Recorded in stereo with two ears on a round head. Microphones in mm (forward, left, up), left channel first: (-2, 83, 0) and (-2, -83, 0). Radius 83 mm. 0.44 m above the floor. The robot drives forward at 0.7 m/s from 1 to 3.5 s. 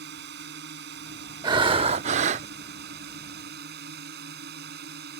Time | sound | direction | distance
0.0 | a drone | 65° right (ahead or behind) | ?
1.4 | breathing | 25° right (ahead or behind) | ?